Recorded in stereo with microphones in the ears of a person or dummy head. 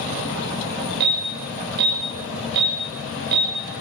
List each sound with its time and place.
1.0 s an alarm: 55° right (ahead or behind), 7 m